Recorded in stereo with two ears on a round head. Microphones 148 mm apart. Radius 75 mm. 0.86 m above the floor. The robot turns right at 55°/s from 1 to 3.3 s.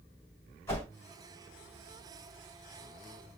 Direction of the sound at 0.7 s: 15° left (ahead or behind).